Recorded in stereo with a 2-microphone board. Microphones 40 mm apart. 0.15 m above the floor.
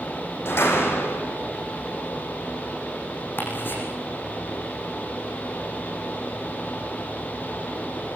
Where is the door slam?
80° left, 6 m.